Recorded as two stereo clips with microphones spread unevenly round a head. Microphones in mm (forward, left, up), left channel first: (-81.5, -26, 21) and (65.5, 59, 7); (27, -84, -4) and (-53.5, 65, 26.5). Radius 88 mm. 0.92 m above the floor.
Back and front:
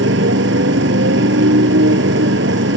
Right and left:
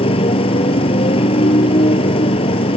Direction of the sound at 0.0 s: Straight ahead.